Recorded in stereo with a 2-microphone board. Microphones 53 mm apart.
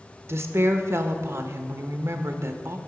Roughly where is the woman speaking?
Right.